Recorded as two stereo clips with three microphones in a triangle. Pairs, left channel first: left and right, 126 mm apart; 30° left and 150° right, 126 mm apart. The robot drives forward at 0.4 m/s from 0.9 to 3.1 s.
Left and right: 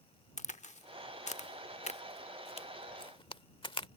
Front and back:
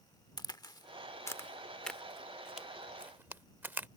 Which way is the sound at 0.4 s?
85° left.